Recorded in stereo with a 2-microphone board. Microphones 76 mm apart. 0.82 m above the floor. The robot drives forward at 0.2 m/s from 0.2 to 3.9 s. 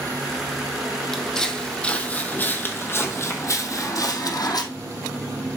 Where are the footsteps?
5° left (ahead or behind), 1.7 m; by 4.6 s 60° left (ahead or behind), 1.7 m.